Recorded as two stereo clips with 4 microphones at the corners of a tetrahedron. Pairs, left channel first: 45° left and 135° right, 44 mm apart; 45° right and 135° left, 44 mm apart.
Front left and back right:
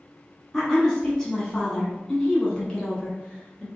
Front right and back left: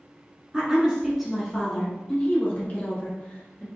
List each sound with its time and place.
0.5 s a woman speaking: 115° left, 1.1 m; by 3.7 s 15° right, 1.7 m